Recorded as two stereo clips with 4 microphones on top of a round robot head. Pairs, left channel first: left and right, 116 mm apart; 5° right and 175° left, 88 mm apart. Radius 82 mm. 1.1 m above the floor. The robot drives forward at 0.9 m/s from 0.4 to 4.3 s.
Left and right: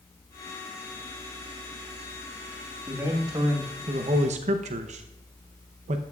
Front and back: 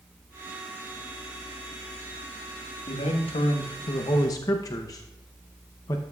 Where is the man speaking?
20° right, 1.7 m; by 6.0 s 65° right, 0.7 m.